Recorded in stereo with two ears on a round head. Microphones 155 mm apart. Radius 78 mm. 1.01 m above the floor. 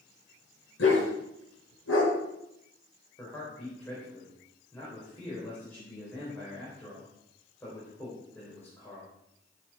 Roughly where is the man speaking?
Centre.